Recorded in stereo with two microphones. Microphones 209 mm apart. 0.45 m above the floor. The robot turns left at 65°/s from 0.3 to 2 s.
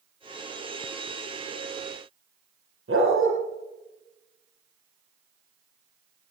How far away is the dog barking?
About 7 m.